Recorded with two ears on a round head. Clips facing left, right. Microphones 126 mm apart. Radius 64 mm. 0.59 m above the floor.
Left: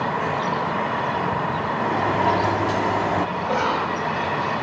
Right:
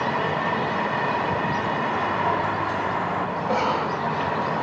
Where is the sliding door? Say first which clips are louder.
Left 3 dB; 40° left (ahead or behind), 1.2 m.